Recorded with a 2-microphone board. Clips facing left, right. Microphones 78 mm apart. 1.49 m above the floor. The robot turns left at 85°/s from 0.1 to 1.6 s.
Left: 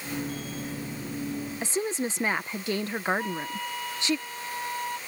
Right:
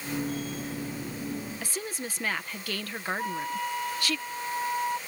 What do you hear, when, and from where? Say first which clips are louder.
1.6 s a woman speaking: left 7 dB; 25° left (ahead or behind)
3.2 s a flute: right 1 dB; 15° right (ahead or behind)